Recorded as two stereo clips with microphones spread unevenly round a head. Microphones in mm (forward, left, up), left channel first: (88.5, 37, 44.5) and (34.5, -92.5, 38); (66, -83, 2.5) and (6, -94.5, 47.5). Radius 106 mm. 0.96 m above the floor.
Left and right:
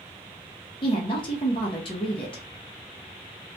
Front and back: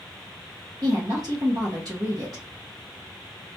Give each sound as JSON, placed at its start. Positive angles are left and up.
{"t": 0.8, "sound": "a woman speaking", "azimuth_deg": 125, "distance_m": 1.0}